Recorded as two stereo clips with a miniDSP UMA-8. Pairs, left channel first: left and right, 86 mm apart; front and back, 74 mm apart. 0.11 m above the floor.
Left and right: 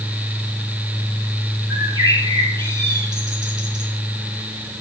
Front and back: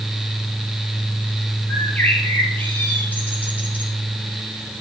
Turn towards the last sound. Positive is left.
turn(degrees=-65)